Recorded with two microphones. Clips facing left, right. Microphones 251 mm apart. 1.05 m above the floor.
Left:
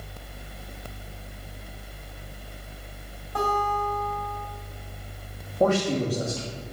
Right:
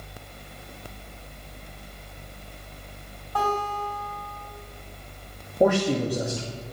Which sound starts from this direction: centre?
A man speaking, at 5.6 s.